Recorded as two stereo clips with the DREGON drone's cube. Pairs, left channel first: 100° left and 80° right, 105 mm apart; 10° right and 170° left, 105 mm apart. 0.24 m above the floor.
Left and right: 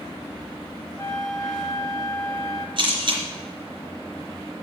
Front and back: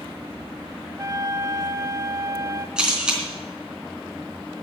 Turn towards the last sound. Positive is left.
turn(degrees=-110)